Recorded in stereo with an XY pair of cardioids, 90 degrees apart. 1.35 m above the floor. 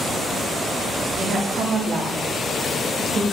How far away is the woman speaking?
About 3.5 m.